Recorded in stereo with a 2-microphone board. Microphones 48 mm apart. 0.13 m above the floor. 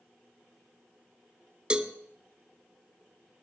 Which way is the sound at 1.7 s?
20° right (ahead or behind).